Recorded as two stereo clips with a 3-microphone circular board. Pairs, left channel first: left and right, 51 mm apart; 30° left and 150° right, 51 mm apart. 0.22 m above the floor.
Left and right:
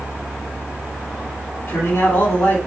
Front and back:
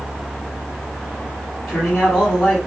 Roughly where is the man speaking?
Left.